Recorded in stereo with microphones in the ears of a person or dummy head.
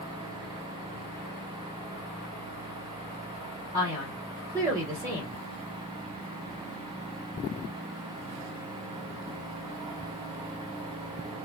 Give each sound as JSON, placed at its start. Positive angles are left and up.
{"t": 3.7, "sound": "a man speaking", "side_deg": -15, "distance_m": 1.4}